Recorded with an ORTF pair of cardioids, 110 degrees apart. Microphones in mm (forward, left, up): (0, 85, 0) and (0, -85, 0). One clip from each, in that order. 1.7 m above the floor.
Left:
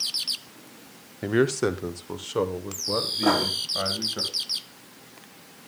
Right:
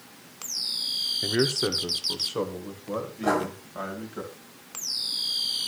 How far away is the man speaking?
About 0.7 m.